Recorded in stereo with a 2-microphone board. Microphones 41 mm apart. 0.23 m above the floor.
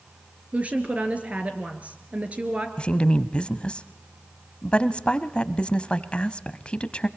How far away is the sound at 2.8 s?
About 1.2 m.